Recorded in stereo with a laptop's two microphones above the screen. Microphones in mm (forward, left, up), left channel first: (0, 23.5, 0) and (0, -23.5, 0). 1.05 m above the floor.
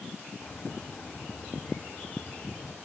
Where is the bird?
30° left (ahead or behind), 2 m.